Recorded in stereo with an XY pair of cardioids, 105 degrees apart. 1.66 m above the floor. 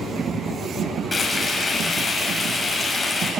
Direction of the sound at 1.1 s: 30° left.